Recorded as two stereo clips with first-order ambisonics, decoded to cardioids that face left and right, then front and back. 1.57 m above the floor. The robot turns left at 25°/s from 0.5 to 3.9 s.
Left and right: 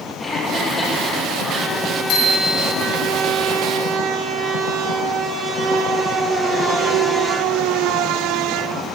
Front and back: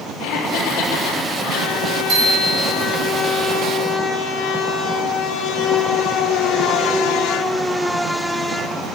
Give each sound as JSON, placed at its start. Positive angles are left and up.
{"t": 0.2, "sound": "laughter", "azimuth_deg": 5, "distance_m": 3.5}
{"t": 2.1, "sound": "a bicycle bell", "azimuth_deg": 130, "distance_m": 6.0}